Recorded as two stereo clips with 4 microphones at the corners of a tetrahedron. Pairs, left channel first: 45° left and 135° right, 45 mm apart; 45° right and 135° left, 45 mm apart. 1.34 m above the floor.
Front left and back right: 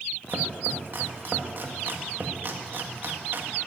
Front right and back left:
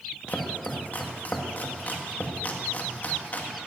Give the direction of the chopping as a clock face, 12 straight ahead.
3 o'clock.